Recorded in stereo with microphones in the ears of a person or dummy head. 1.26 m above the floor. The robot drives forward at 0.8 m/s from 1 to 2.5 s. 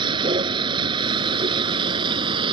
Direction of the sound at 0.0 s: 25° right (ahead or behind).